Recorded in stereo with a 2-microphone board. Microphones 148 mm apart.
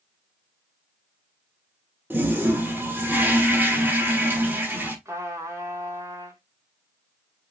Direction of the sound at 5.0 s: 20° right (ahead or behind).